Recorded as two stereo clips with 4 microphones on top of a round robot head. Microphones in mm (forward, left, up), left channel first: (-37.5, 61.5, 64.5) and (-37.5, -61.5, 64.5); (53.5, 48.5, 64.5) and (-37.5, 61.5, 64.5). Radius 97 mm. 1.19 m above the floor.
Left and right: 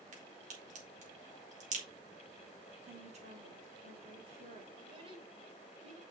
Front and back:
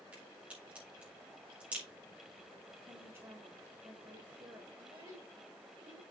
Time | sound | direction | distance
0.1 | a crack | 110° right | 4 m
2.9 | a woman speaking | 120° right | 4 m
4.8 | a child speaking | 135° right | 4.5 m